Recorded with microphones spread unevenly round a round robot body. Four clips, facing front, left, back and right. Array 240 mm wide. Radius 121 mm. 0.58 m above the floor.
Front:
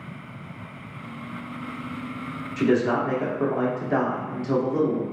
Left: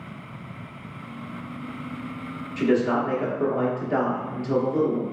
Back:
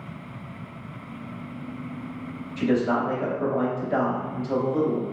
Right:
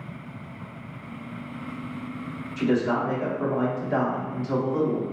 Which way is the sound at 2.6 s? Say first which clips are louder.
Left 2 dB, front 1 dB; 30° left.